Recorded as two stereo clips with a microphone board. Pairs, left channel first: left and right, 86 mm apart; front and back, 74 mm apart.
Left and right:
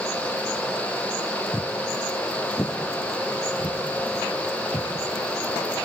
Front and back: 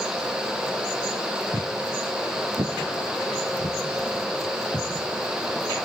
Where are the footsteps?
155° left, 1.5 m; by 5.9 s 140° left, 5 m.